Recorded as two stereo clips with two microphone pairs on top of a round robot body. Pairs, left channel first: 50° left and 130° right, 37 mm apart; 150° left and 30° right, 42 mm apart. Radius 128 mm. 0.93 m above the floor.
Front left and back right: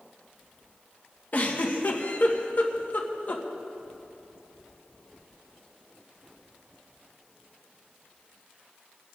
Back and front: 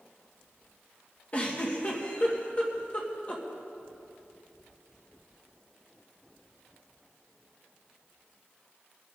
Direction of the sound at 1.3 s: 90° left.